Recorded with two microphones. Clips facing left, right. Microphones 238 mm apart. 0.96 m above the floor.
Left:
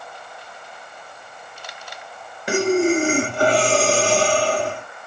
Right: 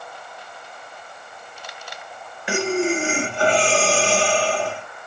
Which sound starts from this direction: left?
Breathing, at 2.5 s.